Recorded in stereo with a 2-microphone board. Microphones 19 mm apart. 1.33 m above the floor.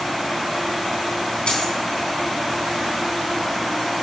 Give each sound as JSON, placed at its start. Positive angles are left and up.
{"t": 1.5, "sound": "a dropped coin", "side_deg": 50, "distance_m": 3.5}